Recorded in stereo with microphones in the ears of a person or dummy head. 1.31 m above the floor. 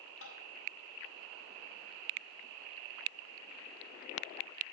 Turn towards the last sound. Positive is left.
turn(degrees=80)